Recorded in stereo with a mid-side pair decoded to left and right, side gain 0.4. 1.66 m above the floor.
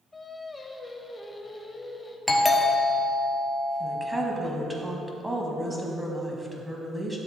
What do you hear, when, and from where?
0.1 s singing: 25° left, 1.1 m
2.3 s a doorbell: 10° left, 1.6 m
3.8 s a woman speaking: 10° right, 2.0 m